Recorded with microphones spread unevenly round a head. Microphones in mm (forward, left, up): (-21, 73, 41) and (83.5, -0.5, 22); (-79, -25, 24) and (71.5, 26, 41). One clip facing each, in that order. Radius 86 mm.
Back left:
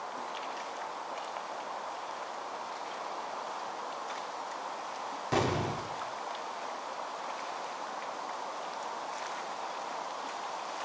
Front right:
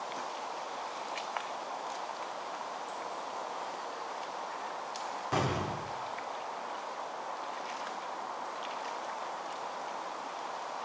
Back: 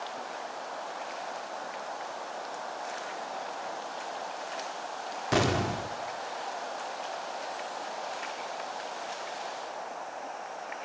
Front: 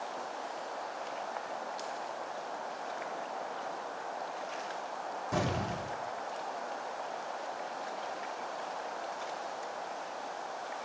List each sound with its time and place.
5.3 s an explosion: 160° right, 1.0 m